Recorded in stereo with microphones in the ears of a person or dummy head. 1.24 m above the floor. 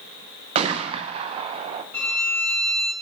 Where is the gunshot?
35° right (ahead or behind), 0.6 m.